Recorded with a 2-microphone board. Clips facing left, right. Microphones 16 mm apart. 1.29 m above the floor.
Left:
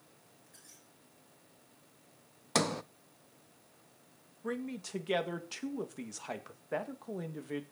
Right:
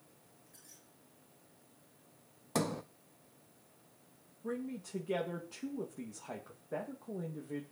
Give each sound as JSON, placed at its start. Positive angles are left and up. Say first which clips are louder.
{"t": 0.5, "sound": "a squeak", "louder": "left 1 dB", "side_deg": 10, "distance_m": 6.5}
{"t": 2.5, "sound": "a sliding door", "louder": "left 4 dB", "side_deg": 40, "distance_m": 0.5}
{"t": 4.4, "sound": "a man speaking", "louder": "left 2 dB", "side_deg": 80, "distance_m": 1.9}